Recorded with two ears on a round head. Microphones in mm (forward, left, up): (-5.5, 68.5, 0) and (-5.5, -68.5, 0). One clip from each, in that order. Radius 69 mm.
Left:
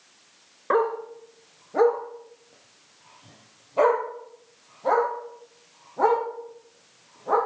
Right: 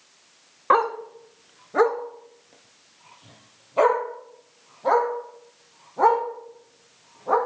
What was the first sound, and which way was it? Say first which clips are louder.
A dog barking: right 3 dB; 90° right.